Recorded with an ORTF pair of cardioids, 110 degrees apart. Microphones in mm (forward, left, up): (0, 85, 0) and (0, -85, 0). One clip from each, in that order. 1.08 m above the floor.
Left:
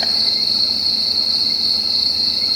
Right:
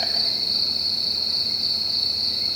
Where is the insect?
35° left, 3 m.